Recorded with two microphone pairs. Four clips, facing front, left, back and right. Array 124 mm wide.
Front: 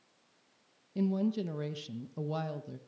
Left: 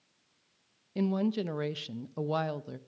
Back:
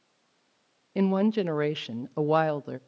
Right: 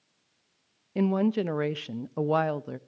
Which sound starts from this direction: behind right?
A woman speaking, at 0.9 s.